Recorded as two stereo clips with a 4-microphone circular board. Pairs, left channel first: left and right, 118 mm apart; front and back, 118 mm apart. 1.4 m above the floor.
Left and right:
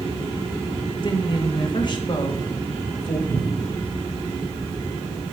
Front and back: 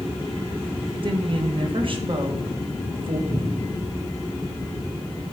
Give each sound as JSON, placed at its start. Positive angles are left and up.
{"t": 1.0, "sound": "a woman speaking", "azimuth_deg": 140, "distance_m": 1.7}
{"t": 3.3, "sound": "a cupboard door", "azimuth_deg": -125, "distance_m": 2.5}